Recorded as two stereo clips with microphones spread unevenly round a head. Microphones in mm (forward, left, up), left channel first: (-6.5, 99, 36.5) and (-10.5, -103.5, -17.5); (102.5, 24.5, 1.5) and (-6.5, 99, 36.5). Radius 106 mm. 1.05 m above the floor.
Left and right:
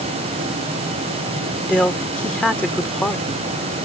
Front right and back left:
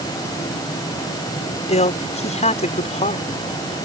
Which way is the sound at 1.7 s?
5° left.